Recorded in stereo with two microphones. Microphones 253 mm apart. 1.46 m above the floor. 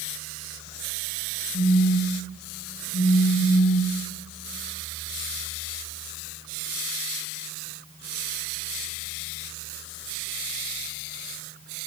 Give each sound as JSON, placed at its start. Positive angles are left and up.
{"t": 1.5, "sound": "a phone buzzing", "side_deg": 50, "distance_m": 4.0}